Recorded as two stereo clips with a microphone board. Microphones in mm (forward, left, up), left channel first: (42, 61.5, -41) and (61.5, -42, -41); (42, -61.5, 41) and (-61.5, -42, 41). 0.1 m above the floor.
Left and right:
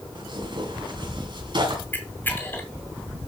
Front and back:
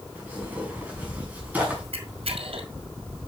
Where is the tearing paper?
115° right, 5.5 m.